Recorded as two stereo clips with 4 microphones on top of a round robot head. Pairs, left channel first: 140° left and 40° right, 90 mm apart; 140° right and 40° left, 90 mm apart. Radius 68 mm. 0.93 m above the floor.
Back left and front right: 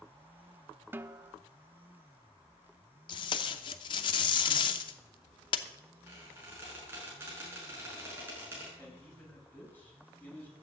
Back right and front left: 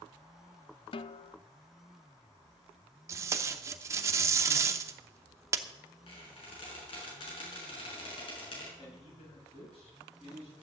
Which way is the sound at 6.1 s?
110° right.